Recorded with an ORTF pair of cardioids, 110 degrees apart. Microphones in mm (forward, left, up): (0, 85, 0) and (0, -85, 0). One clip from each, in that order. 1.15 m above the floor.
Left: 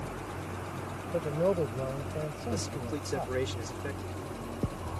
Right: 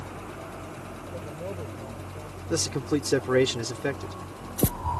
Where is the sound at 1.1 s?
50° left; by 3.4 s 65° left.